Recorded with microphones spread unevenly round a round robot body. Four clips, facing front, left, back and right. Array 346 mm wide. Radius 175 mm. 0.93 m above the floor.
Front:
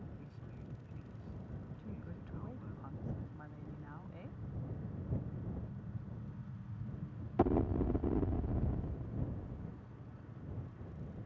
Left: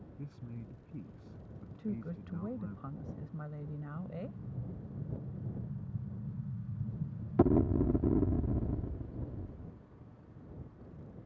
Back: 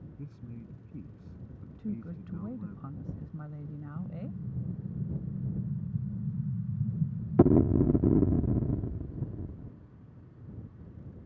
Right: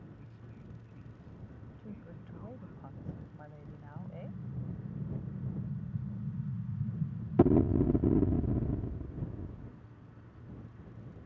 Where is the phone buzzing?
I don't hear a phone buzzing.